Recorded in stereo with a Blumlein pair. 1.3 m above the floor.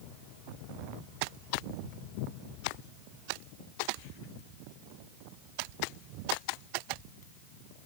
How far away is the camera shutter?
No camera shutter in this recording.